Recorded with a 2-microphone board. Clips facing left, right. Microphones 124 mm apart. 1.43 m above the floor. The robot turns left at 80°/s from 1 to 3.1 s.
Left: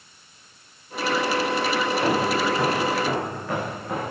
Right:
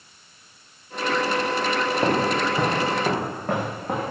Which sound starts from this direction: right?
Footsteps, at 2.0 s.